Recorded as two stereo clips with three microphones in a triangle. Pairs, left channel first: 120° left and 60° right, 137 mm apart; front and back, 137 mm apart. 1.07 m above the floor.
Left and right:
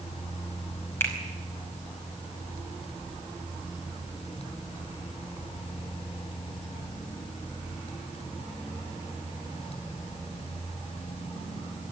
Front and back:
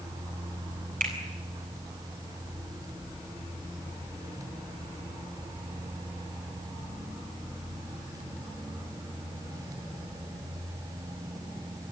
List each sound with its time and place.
1.0 s a finger snap: 165° right, 5.5 m